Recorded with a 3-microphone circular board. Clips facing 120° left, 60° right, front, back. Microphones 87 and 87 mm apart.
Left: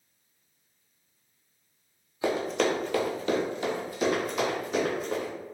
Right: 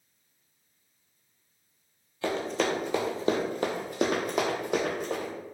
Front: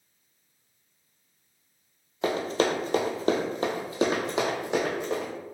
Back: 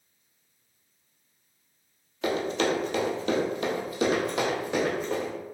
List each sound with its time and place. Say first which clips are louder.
2.2 s running footsteps: left 2 dB, front 1 dB; 45° left, 0.6 m; by 5.3 s 75° right, 1.4 m